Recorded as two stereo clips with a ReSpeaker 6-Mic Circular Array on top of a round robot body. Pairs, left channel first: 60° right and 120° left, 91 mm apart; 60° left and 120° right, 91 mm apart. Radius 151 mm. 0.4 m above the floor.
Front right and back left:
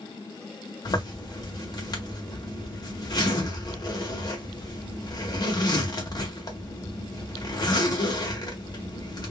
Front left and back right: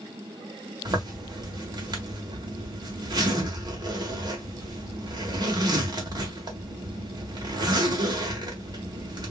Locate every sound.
0.8 s a zipper: 90° right, 1.7 m